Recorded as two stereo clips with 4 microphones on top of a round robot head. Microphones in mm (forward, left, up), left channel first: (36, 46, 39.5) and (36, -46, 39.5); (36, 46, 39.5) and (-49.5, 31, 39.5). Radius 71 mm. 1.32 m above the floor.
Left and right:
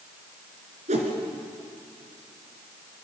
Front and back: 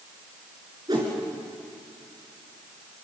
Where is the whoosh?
110° right, 3.5 m.